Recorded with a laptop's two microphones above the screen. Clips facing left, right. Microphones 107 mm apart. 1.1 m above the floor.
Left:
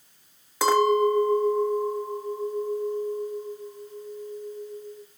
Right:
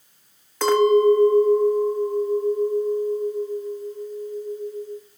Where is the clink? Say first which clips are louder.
Right 4 dB; 10° left (ahead or behind), 1.0 m.